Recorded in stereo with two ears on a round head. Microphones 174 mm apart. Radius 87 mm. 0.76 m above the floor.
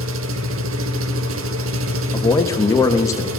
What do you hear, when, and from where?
0.0 s an engine running: 75° right (ahead or behind), 1.0 m
2.1 s a man speaking: 15° left (ahead or behind), 1.1 m